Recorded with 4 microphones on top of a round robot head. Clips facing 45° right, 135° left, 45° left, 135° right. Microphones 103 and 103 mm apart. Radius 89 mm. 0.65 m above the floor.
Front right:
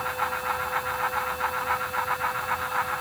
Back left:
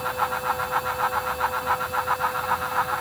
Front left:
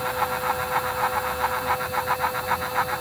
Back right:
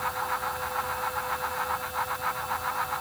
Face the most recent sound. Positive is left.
No sound to turn to.